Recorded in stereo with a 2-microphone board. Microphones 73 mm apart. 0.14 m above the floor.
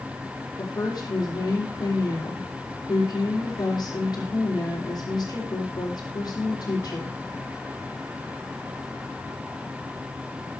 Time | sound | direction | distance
0.6 | a woman speaking | 70° left (ahead or behind) | 6 m